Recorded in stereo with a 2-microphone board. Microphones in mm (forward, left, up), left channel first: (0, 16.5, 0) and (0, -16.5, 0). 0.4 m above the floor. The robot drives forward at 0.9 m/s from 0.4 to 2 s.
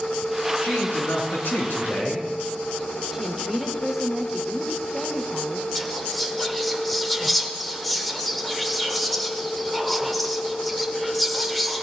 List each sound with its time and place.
0.6 s a man speaking: 75° left (ahead or behind), 3.5 m
3.1 s a woman speaking: 10° right (ahead or behind), 1.0 m
5.8 s whispering: 5° left (ahead or behind), 1.0 m